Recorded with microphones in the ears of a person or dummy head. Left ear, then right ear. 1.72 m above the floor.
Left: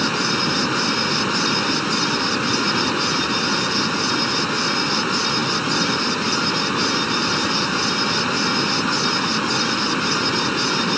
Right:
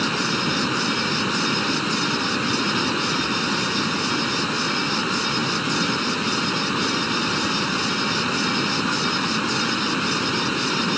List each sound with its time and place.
0.0 s running water: 15° left (ahead or behind)